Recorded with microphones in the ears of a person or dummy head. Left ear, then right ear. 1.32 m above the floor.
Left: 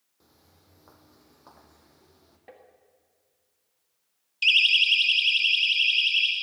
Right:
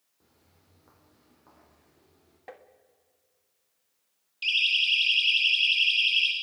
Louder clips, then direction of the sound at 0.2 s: Left 4 dB; 30° left (ahead or behind).